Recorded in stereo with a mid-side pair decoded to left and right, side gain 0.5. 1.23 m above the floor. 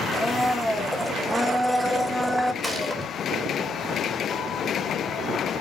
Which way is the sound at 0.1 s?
5° left.